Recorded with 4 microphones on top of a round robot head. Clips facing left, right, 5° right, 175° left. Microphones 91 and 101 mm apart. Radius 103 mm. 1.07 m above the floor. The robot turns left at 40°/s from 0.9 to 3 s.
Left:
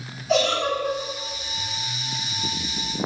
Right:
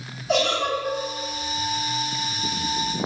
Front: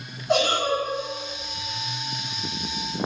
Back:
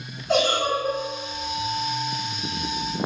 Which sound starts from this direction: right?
A giggle, at 0.3 s.